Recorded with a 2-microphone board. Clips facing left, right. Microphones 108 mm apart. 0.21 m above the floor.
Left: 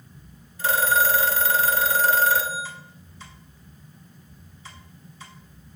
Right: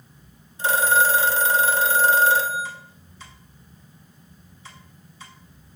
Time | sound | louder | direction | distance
0.6 | a phone ringing | right 2 dB | 25° right (ahead or behind) | 0.8 m